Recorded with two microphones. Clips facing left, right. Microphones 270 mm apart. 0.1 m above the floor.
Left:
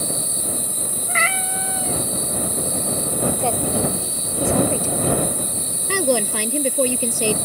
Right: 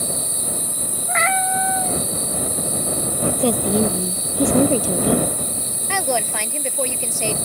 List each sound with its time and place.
1.1 s a cat meowing: 35° left (ahead or behind)
3.4 s a woman speaking: 40° right (ahead or behind)
5.9 s a woman speaking: 40° left (ahead or behind)